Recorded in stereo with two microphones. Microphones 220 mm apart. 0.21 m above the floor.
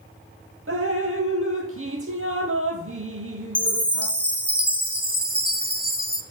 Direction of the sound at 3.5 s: 25° right (ahead or behind).